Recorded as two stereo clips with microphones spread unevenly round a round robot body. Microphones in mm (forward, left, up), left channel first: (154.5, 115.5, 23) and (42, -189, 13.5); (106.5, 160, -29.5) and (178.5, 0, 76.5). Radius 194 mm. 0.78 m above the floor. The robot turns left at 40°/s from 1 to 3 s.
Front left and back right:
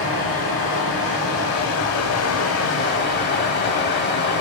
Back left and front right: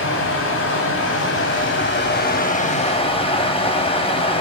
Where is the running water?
105° left, 0.7 m; by 4.4 s 25° left, 0.7 m.